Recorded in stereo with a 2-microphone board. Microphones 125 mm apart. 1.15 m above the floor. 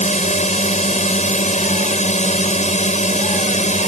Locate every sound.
0.0 s a drone: 70° left (ahead or behind)